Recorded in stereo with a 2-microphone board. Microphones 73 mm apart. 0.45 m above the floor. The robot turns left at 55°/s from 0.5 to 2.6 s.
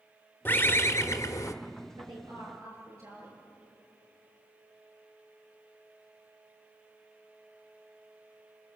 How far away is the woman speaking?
About 10 m.